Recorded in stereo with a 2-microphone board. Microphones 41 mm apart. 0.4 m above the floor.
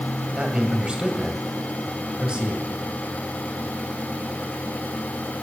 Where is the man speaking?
20° right (ahead or behind), 2 m.